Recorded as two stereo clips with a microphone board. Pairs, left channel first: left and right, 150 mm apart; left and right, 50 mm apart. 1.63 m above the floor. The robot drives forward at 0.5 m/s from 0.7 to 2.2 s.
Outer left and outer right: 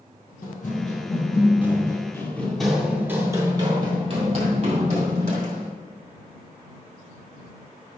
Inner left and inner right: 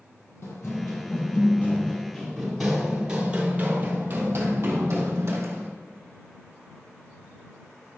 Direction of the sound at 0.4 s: 60° left (ahead or behind).